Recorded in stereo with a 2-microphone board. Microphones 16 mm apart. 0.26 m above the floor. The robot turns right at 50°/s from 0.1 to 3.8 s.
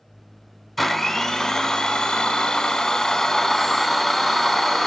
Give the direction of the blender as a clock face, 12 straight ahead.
12 o'clock.